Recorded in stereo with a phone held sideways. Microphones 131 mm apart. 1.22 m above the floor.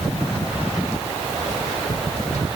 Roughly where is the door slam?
I don't hear a door slam.